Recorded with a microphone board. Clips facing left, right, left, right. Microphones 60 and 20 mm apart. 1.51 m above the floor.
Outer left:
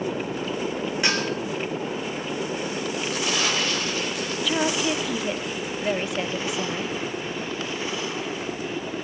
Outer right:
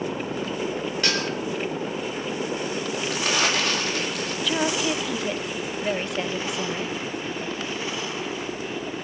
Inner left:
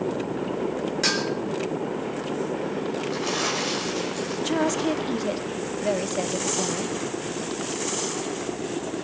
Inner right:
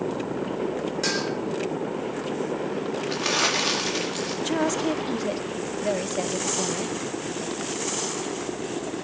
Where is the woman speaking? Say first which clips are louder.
Even, inner left 1 dB; centre (ahead or behind), 0.8 m.